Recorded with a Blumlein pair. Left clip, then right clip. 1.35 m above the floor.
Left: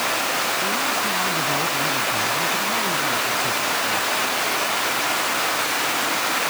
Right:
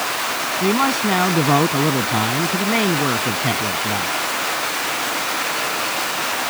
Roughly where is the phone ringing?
I don't hear a phone ringing.